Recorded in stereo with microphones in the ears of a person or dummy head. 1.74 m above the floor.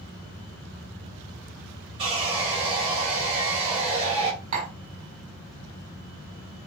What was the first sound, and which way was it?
Sawing, 30° right (ahead or behind).